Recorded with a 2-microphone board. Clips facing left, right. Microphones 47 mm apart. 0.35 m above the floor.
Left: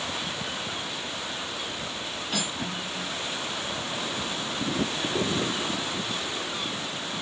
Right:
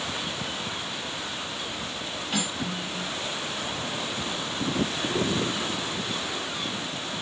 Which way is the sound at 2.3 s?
5° right (ahead or behind).